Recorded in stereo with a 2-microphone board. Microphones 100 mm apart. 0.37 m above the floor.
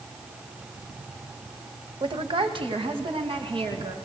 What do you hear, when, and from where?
2.0 s a woman speaking: 55° right (ahead or behind), 1.4 m; by 4.0 s 65° right (ahead or behind), 3.5 m